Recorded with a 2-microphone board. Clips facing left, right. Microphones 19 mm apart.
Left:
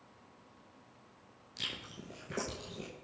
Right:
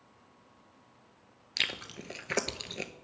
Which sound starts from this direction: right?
Chewing, at 1.6 s.